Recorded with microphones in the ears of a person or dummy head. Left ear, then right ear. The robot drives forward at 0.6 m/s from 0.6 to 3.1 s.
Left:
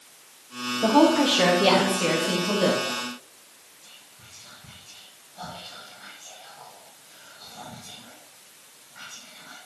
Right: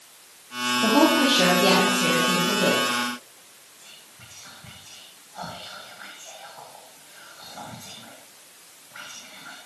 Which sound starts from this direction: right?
Whispering, at 3.8 s.